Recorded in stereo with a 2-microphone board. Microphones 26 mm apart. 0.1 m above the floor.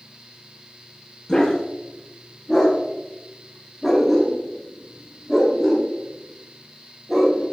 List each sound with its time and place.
1.3 s a dog barking: 25° left (ahead or behind), 6.5 m; by 7.4 s 5° right (ahead or behind), 11.5 m